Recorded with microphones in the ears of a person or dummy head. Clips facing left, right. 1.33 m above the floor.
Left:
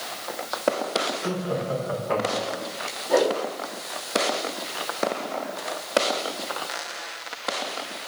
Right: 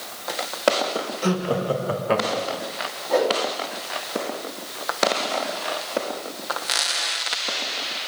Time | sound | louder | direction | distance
1.2 | laughter | right 4 dB | 85° right | 1.5 m
3.1 | a whoosh | even | 10° left (ahead or behind) | 3 m